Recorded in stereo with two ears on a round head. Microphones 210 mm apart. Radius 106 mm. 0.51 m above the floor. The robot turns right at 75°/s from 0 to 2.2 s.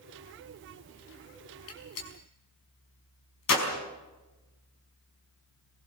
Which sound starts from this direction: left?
A gunshot, at 1.7 s.